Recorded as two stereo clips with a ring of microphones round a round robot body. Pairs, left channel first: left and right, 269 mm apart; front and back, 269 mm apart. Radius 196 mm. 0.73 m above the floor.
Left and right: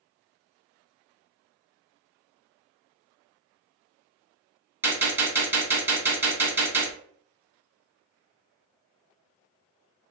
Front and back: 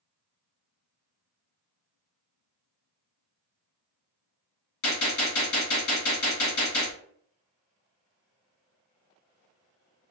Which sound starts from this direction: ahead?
A gunshot, at 4.8 s.